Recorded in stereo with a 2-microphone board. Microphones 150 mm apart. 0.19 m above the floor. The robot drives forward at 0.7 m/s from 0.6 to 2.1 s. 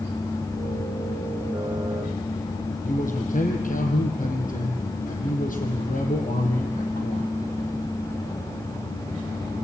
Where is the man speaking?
60° left (ahead or behind), 5 m.